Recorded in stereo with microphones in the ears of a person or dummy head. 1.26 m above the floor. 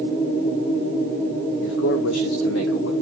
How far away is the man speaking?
About 1.2 m.